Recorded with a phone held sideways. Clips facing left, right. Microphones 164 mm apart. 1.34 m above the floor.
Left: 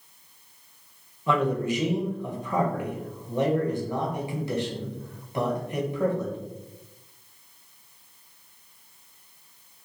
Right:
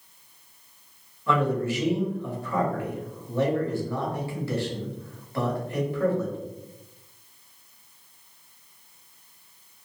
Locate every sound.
1.3 s a man speaking: 20° left (ahead or behind), 0.8 m